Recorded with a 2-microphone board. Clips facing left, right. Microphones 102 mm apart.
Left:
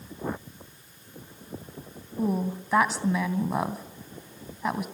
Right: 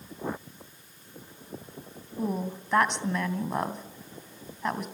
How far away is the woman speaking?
About 2.5 m.